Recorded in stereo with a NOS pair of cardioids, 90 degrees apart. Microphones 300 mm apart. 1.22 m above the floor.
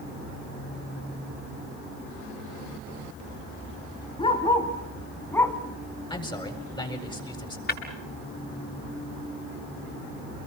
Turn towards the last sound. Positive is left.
turn(degrees=30)